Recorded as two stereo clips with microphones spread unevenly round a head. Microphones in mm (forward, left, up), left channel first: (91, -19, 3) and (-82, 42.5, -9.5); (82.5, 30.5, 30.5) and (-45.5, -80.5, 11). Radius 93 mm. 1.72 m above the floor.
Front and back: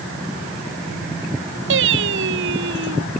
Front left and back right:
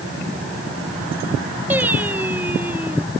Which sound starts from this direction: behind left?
Singing, at 1.7 s.